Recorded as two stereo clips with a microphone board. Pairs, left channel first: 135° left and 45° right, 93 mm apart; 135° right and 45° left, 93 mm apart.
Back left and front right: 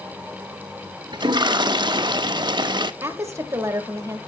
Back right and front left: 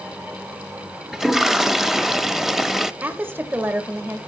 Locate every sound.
1.1 s a toilet flushing: 40° right, 0.5 m
3.0 s a woman speaking: 5° right, 1.4 m